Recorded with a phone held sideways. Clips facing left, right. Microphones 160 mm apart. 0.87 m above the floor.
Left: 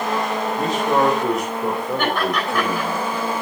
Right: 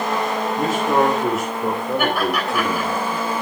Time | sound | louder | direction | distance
0.6 | a man speaking | right 1 dB | centre (ahead or behind) | 3 m
2.0 | laughter | right 1 dB | 5° right (ahead or behind) | 7.5 m